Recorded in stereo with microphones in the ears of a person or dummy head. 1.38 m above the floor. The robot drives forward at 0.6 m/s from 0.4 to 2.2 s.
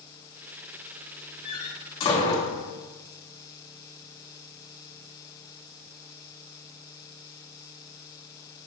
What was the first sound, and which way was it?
A door slam, 50° left (ahead or behind).